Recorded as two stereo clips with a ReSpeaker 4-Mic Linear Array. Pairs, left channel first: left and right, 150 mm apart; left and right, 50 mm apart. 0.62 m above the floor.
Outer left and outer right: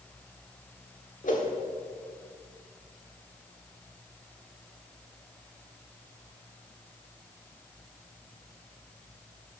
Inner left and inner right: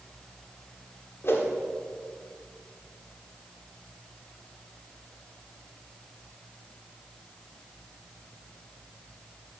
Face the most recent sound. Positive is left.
turn(degrees=60)  # may be behind; listen again after turning